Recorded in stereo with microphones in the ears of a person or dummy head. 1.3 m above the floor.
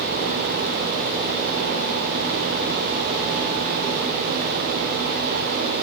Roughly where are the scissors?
I don't hear scissors.